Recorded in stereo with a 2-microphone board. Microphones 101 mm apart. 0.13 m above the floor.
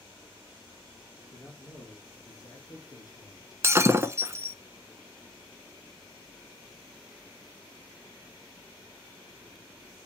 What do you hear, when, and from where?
1.3 s a man speaking: 35° left (ahead or behind), 2 m; by 3.5 s 40° left (ahead or behind), 1.4 m
3.6 s breaking glass: 30° right (ahead or behind), 0.6 m